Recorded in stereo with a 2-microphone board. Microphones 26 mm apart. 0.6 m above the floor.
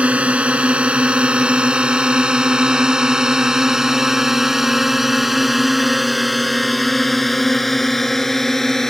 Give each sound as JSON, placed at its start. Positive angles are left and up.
{"t": 0.0, "sound": "a drone", "side_deg": -60}